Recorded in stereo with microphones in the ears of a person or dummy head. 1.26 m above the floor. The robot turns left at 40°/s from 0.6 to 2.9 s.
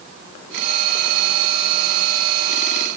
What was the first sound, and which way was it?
Only background noise.